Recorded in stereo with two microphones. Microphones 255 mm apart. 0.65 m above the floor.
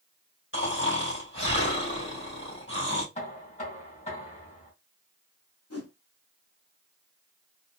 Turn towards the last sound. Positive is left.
turn(degrees=75)  # may be behind; listen again after turning